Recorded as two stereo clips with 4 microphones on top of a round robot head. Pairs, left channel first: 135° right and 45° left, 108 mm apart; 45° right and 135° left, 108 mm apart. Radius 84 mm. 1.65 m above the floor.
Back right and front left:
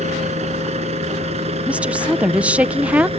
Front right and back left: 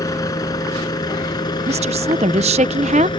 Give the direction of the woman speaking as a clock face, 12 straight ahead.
8 o'clock.